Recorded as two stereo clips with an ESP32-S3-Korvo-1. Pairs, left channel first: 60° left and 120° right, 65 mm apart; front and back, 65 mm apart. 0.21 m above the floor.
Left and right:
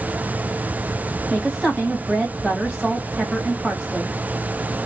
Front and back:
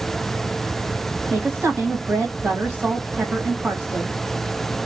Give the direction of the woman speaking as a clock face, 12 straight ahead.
7 o'clock.